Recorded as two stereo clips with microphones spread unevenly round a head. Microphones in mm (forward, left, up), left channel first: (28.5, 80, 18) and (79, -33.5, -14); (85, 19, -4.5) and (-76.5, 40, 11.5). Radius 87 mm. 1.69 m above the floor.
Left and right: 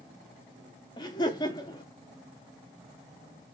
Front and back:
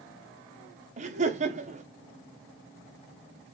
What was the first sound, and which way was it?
Laughter, 145° left.